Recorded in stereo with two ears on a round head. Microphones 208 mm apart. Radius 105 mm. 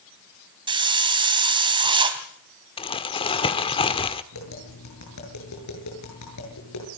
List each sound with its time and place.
0.7 s a hiss: 20° right (ahead or behind), 2.5 m
2.8 s crumpling: 20° left (ahead or behind), 1.2 m
4.3 s tapping: 90° left, 8.5 m